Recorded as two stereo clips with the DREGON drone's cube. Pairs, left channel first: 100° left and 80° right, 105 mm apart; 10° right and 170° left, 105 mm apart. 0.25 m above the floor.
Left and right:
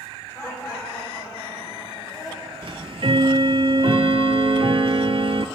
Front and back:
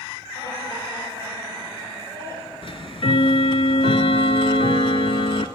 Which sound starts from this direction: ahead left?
Laughter, at 0.3 s.